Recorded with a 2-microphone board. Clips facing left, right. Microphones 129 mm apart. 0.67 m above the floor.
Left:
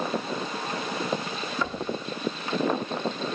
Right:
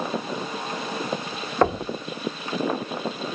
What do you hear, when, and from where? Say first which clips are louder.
1.6 s knocking: right 12 dB; 60° right (ahead or behind), 0.9 m